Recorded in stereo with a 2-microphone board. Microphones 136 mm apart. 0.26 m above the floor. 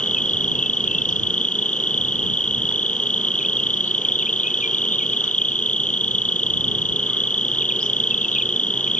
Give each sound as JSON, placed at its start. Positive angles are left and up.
{"t": 0.0, "sound": "an insect", "side_deg": 75}